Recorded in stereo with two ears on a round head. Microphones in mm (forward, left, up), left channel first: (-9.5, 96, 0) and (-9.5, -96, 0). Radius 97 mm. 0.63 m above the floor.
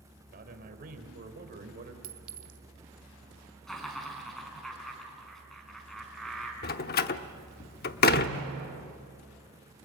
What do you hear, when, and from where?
0.3 s a man speaking: 45° right (ahead or behind), 3 m
2.0 s a clink: 40° right (ahead or behind), 1.4 m
3.7 s laughter: centre (ahead or behind), 5.5 m
6.6 s a door slam: 45° left (ahead or behind), 0.8 m